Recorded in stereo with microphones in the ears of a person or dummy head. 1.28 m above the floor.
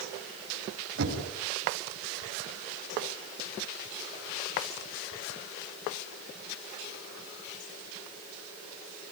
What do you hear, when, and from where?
1.0 s knocking: 65° right (ahead or behind), 6.5 m